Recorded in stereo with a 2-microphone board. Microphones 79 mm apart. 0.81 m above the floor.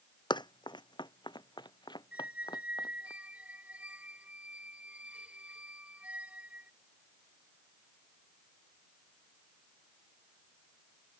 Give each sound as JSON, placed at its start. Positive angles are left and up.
{"t": 0.3, "sound": "running footsteps", "side_deg": 70}
{"t": 2.1, "sound": "a squeak", "side_deg": -15}